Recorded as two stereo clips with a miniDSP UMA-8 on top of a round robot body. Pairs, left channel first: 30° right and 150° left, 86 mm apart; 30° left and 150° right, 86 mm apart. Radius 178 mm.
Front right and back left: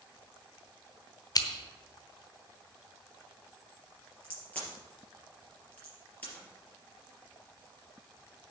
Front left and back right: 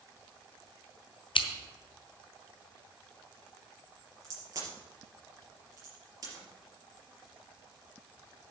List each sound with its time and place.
1.4 s scissors: 15° left, 1.0 m
4.2 s a crack: 105° right, 4.5 m